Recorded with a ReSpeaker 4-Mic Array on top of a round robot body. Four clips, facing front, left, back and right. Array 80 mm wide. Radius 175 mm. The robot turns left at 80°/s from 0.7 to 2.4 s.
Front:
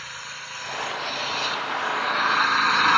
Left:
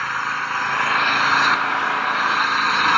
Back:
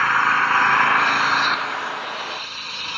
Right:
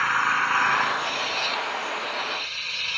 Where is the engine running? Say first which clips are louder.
Right 1 dB, back 21 dB; straight behind; by 3.0 s 45° left.